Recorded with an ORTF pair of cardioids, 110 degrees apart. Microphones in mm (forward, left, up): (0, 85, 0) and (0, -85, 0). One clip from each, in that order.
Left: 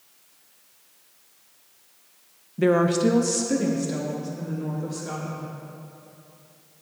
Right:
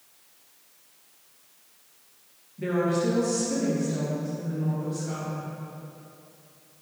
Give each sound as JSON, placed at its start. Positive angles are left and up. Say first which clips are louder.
{"t": 2.6, "sound": "a woman speaking", "louder": "left 6 dB", "azimuth_deg": 65, "distance_m": 0.8}